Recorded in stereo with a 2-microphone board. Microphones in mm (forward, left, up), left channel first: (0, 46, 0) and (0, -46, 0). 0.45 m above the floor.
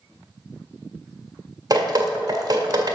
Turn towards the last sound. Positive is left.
turn(degrees=-40)  # may be behind; listen again after turning